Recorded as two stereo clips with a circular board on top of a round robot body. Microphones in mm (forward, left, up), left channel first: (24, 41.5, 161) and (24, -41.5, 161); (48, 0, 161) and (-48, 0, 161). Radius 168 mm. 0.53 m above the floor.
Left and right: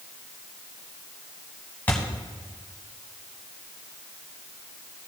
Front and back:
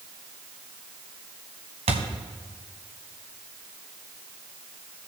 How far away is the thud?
About 1.2 m.